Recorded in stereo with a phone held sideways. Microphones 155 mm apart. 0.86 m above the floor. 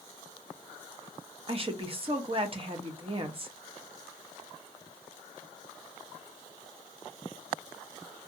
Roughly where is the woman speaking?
Right.